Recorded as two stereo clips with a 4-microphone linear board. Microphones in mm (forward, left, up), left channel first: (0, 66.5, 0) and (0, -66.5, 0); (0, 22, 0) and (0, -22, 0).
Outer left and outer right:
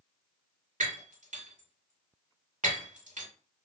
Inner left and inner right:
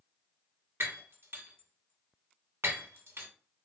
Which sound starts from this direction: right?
Breaking glass, at 0.8 s.